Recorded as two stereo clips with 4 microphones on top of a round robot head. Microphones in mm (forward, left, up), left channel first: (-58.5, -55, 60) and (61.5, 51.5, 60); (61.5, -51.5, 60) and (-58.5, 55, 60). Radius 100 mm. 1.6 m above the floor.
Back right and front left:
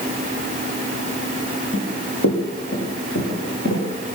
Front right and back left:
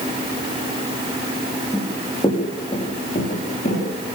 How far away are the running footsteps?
About 6.5 m.